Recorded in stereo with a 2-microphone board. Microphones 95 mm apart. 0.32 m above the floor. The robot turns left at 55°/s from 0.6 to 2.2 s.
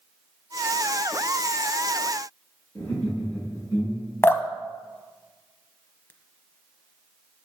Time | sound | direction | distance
2.8 | laughter | 20° left (ahead or behind) | 4 m
4.2 | dripping | 25° left (ahead or behind) | 0.7 m